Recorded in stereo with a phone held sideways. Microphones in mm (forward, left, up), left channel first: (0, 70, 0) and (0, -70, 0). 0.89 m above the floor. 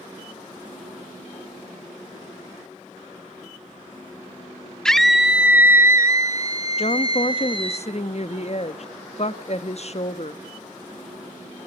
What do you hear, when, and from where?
4.8 s a scream: 5° left (ahead or behind), 1.6 m; by 7.8 s 40° right (ahead or behind), 3.5 m
6.8 s a woman speaking: 50° left (ahead or behind), 1.1 m